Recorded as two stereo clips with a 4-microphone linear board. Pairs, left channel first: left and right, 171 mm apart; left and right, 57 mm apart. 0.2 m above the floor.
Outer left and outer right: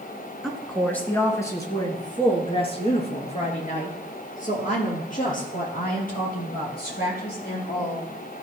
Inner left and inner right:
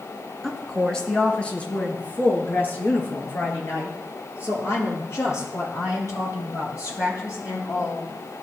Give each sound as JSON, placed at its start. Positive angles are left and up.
{"t": 0.4, "sound": "a woman speaking", "side_deg": 0, "distance_m": 1.9}